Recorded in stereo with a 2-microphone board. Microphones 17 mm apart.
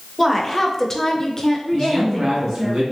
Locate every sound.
0.2 s a woman speaking: 10° left (ahead or behind), 0.9 m; by 2.7 s 15° left (ahead or behind), 1.1 m
1.7 s a man speaking: 55° right (ahead or behind), 1.5 m